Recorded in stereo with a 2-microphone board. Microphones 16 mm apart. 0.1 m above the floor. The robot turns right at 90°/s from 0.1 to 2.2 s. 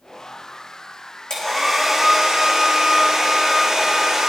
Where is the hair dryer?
130° left, 5 m; by 4.3 s 150° right, 5 m.